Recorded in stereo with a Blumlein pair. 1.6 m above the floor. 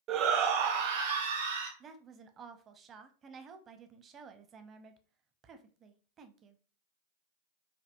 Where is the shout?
30° right, 0.6 m; by 1.7 s 65° right, 1.5 m.